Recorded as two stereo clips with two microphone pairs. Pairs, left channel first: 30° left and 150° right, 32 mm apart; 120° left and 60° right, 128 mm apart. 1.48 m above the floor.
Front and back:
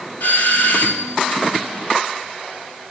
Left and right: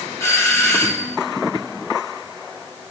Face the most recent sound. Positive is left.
turn(degrees=50)